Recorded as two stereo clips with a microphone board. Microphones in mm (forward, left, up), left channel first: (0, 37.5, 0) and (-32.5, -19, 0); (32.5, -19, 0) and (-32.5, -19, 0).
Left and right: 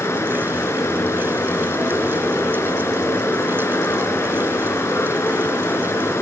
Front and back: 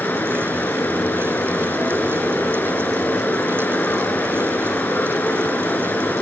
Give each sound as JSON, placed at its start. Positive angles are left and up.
{"t": 0.0, "sound": "running water", "azimuth_deg": 50, "distance_m": 1.4}